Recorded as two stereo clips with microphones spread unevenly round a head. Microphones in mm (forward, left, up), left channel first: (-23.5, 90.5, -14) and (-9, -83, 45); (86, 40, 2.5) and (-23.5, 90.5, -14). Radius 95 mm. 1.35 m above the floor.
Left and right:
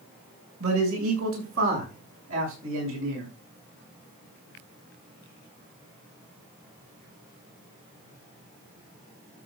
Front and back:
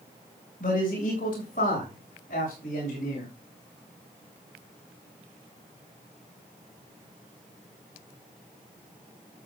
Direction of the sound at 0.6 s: 70° right.